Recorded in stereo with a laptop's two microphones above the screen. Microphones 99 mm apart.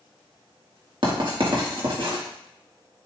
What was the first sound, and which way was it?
Writing, 55° right (ahead or behind).